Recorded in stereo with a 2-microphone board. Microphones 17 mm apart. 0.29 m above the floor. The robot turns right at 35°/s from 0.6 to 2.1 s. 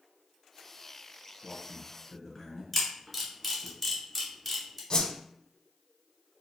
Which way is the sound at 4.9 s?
50° left (ahead or behind).